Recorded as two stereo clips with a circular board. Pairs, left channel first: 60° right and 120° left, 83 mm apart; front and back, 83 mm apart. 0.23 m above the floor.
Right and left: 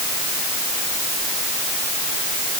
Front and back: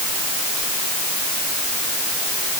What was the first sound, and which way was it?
Only background noise.